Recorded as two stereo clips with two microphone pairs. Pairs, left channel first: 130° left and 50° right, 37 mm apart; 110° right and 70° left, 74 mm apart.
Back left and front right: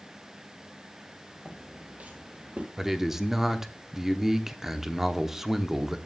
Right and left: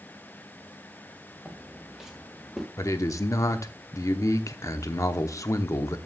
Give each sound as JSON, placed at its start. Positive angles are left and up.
{"t": 1.4, "sound": "footsteps", "azimuth_deg": -5, "distance_m": 2.0}
{"t": 2.8, "sound": "a man speaking", "azimuth_deg": -125, "distance_m": 0.9}